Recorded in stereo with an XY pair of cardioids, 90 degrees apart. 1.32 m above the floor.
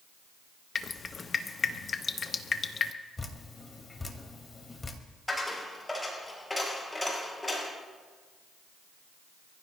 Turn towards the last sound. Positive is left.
turn(degrees=15)